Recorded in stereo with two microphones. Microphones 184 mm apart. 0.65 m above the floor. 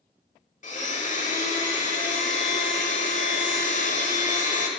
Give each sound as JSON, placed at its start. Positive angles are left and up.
{"t": 0.6, "sound": "a blender", "side_deg": 40, "distance_m": 1.1}